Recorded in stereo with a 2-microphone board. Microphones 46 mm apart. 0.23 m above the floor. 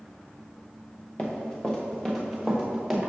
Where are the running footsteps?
25° left (ahead or behind), 1.5 m; by 3.1 s 10° right (ahead or behind), 1.8 m.